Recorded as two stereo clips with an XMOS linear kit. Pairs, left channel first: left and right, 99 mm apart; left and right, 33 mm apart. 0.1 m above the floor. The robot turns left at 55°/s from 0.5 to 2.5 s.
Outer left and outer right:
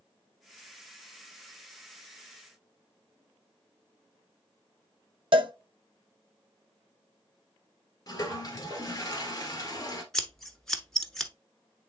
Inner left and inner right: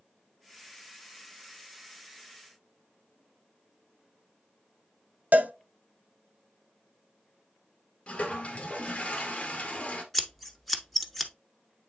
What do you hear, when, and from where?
5.3 s a cowbell: 60° right (ahead or behind), 0.7 m
8.1 s a toilet flushing: 35° left (ahead or behind), 1.5 m
10.1 s scissors: 5° left (ahead or behind), 0.9 m